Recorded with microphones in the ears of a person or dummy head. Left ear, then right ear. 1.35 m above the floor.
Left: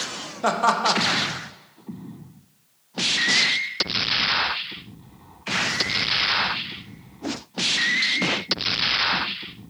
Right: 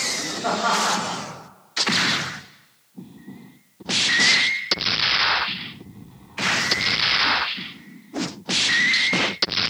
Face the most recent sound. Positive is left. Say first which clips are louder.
# left 2 dB
turn(degrees=80)